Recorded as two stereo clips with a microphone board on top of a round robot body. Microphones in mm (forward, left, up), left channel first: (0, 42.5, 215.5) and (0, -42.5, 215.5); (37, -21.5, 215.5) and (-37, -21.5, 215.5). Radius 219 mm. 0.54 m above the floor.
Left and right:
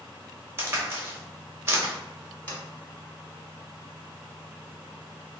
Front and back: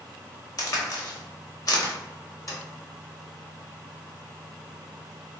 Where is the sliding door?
25° left, 1.8 m.